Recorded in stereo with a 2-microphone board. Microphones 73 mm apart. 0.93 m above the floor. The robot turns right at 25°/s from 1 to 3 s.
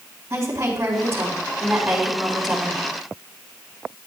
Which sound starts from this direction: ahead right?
A woman speaking, at 0.3 s.